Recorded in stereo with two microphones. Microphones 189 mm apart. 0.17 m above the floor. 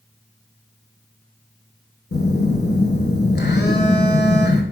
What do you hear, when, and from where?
2.1 s a phone buzzing: 60° left (ahead or behind), 0.5 m